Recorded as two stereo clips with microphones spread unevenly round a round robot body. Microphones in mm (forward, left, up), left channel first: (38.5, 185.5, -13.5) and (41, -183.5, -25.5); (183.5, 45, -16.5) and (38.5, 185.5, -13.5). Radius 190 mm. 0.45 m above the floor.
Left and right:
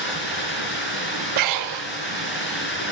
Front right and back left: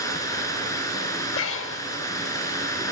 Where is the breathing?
50° right, 0.6 m.